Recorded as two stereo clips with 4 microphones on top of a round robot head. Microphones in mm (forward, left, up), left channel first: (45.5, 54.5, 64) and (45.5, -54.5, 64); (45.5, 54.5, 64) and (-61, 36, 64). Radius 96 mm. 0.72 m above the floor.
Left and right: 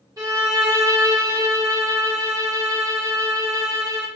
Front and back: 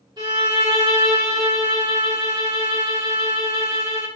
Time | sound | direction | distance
0.2 | a violin | 135° right | 1.5 m